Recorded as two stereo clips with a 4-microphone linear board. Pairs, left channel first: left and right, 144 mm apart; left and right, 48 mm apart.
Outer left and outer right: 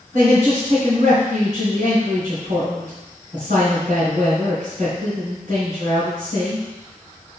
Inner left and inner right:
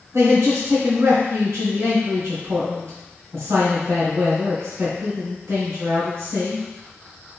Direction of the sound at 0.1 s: 60° right (ahead or behind).